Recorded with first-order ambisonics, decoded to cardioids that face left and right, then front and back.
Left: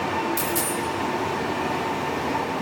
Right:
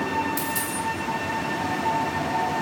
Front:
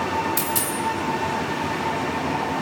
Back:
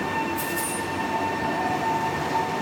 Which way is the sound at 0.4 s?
5° left.